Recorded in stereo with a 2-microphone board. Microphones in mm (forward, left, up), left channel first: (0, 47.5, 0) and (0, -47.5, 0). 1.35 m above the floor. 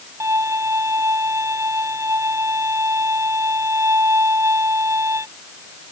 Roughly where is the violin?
Right.